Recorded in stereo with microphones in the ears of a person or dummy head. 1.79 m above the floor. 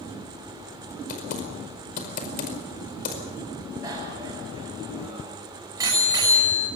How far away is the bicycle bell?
About 6.5 m.